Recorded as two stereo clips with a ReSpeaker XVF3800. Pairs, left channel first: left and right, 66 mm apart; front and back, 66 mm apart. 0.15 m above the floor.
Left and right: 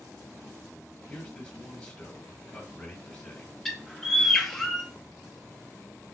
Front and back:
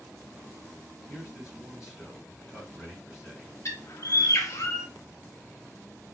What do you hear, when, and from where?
1.1 s a man speaking: 130° left, 1.7 m
3.6 s a bird: 10° left, 0.8 m